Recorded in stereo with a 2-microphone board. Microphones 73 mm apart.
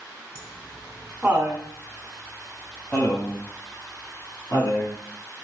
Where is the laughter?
25° right (ahead or behind), 3 m; by 5.0 s 45° left (ahead or behind), 3 m.